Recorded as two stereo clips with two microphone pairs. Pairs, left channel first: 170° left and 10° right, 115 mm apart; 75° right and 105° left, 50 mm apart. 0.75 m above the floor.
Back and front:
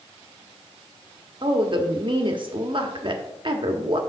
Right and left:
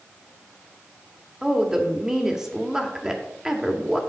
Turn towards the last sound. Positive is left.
turn(degrees=30)